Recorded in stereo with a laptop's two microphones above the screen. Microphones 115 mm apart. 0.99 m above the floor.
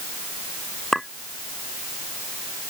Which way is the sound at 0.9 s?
Centre (ahead or behind).